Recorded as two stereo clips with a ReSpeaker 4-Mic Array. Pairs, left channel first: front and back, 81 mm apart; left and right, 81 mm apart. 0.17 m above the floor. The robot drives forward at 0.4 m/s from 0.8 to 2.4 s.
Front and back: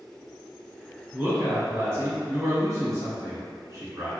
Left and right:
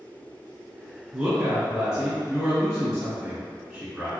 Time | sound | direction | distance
1.1 | a woman speaking | 150° right | 1.1 m